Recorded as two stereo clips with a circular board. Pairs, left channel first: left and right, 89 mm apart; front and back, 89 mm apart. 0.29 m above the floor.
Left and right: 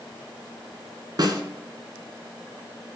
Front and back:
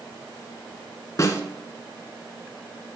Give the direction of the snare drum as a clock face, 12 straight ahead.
2 o'clock.